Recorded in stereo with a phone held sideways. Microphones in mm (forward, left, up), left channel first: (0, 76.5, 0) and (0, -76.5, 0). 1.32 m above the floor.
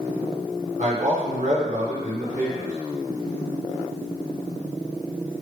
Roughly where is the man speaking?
Right.